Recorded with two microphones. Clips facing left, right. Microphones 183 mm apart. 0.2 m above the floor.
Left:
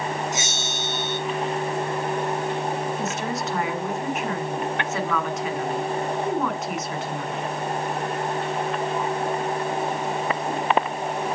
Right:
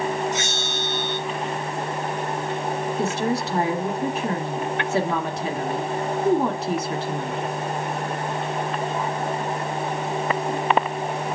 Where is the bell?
15° left (ahead or behind), 3 m.